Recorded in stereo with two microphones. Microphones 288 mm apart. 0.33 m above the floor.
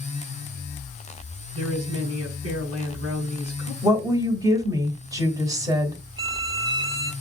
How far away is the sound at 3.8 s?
About 1.1 m.